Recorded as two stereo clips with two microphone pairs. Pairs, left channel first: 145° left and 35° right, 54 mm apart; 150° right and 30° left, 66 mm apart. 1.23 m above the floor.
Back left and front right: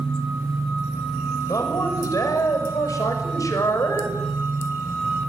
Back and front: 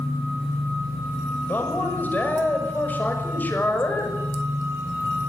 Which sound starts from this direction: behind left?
A man speaking, at 1.5 s.